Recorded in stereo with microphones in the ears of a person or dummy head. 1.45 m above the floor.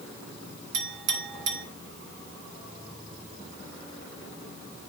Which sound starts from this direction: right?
A clink, at 0.7 s.